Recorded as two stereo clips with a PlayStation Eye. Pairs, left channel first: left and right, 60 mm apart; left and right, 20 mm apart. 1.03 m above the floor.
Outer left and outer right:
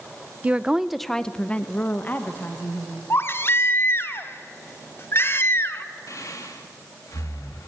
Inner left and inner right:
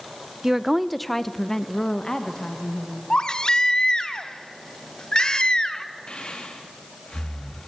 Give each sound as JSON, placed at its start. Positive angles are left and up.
{"t": 0.4, "sound": "a woman speaking", "side_deg": -20, "distance_m": 0.6}
{"t": 3.1, "sound": "a baby crying", "side_deg": 40, "distance_m": 1.1}
{"t": 6.1, "sound": "breathing", "side_deg": 60, "distance_m": 2.5}